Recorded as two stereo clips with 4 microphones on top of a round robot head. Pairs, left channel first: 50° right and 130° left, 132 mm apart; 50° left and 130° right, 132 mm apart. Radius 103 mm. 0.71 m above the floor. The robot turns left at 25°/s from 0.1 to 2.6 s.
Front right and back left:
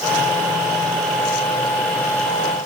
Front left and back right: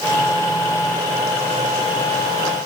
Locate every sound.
Only background noise.